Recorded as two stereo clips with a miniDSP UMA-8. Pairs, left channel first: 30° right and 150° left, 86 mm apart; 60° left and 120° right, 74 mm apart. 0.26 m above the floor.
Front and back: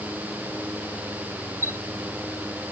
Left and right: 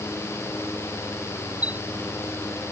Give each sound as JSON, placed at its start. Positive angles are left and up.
{"t": 1.6, "sound": "a chime", "azimuth_deg": 90}